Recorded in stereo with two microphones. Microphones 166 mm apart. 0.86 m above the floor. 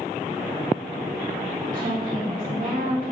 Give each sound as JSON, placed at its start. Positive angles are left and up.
{"t": 1.6, "sound": "a woman speaking", "side_deg": -55, "distance_m": 1.5}